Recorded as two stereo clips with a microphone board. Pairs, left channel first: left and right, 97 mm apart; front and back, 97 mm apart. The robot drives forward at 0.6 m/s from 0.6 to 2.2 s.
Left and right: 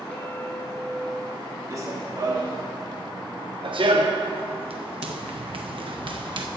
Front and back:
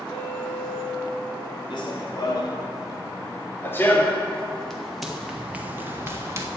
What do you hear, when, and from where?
0.1 s a clink: 10° left, 3 m; by 1.6 s 15° left, 2.5 m
1.7 s running footsteps: 35° right, 2.5 m; by 6.5 s 120° right, 1.6 m